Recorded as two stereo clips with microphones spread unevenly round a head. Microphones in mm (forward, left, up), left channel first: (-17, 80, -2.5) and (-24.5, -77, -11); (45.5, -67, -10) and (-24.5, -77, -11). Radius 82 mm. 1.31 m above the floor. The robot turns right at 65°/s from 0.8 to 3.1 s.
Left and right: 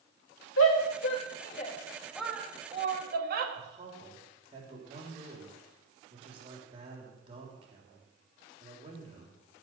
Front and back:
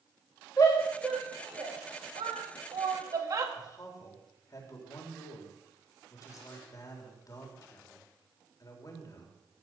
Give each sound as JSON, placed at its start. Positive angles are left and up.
{"t": 0.6, "sound": "a shout", "azimuth_deg": 85, "distance_m": 2.0}
{"t": 3.5, "sound": "a man speaking", "azimuth_deg": -30, "distance_m": 3.5}